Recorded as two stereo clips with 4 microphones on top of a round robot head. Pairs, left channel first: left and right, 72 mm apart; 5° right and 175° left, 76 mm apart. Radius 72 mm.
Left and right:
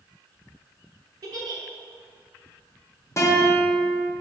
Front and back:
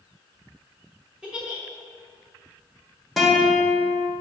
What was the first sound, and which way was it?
A giggle, 105° right.